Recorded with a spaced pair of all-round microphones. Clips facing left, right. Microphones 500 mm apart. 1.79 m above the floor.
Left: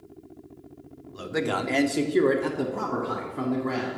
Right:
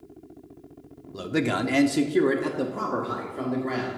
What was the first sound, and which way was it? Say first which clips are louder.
A man speaking: right 3 dB; 60° right (ahead or behind).